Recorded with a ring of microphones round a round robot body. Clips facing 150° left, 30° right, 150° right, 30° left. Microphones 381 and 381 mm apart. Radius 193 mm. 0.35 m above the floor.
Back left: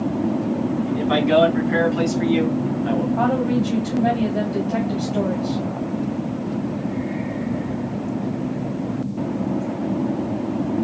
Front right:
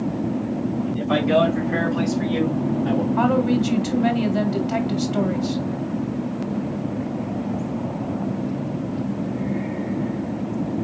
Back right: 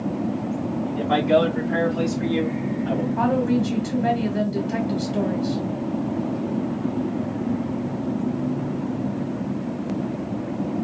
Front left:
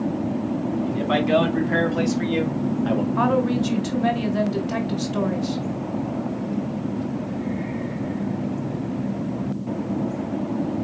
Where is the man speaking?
75° left, 3.5 m; by 3.1 s 60° left, 1.6 m.